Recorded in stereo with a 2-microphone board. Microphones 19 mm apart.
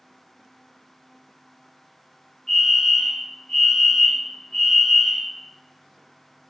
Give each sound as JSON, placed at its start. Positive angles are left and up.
{"t": 2.5, "sound": "a fire alarm", "side_deg": 20, "distance_m": 2.0}